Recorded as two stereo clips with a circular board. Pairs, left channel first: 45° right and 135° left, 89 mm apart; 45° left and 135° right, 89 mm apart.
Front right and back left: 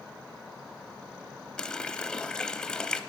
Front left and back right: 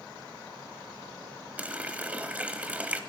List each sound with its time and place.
1.6 s a running tap: 105° right, 0.6 m